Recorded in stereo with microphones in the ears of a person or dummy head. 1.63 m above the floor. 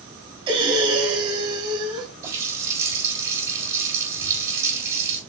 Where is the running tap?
15° right (ahead or behind), 4.5 m.